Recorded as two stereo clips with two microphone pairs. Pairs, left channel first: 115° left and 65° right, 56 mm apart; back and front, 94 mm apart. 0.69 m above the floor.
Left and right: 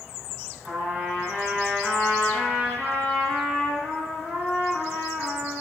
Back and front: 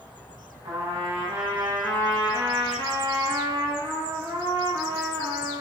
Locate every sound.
0.6 s a trumpet: 10° left, 1.0 m